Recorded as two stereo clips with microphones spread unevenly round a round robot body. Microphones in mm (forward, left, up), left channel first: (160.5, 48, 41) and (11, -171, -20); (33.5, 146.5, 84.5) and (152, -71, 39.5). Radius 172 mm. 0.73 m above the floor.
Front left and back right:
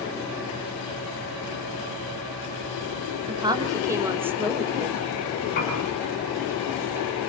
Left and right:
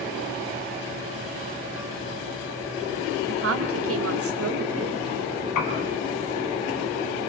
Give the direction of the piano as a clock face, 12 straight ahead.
8 o'clock.